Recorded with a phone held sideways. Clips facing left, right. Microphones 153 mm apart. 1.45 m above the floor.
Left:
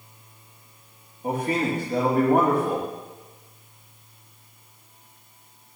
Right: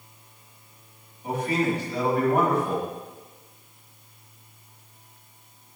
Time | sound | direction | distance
1.2 | a man speaking | 50° left (ahead or behind) | 2.5 m